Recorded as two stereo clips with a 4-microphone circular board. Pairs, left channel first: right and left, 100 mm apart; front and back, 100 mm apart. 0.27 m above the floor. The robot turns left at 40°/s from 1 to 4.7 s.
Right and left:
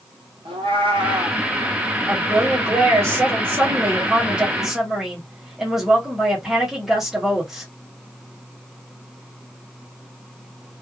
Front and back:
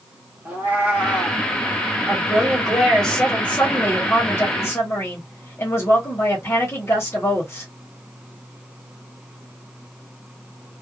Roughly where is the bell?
No bell in this recording.